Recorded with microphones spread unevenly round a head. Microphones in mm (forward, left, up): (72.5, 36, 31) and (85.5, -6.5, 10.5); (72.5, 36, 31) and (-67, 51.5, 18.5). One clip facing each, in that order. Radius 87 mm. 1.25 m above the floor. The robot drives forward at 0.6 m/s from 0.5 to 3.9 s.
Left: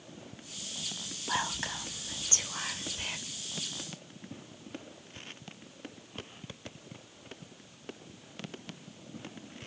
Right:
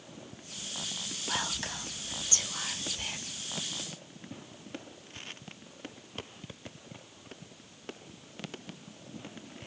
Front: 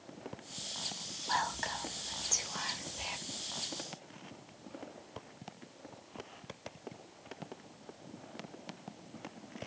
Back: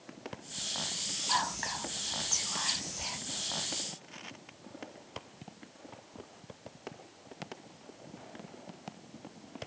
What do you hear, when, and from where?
1.3 s whispering: 45° left, 2.5 m; by 3.2 s 70° left, 1.8 m